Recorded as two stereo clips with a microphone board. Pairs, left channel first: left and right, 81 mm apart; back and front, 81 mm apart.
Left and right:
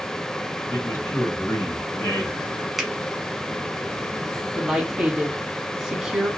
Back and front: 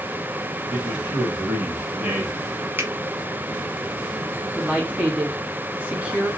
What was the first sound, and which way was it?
A man speaking, 55° left.